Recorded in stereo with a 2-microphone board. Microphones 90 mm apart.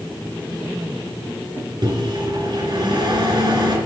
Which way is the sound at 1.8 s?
55° right (ahead or behind).